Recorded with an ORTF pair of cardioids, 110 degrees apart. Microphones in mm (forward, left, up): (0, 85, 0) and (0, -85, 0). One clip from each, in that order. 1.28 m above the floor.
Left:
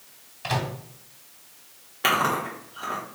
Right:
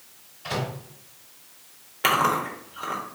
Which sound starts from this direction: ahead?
Chewing, at 2.0 s.